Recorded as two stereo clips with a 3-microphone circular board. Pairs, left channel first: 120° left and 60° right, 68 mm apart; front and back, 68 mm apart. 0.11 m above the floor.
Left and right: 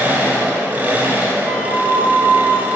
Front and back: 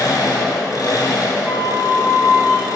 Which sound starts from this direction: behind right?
A flute, at 1.4 s.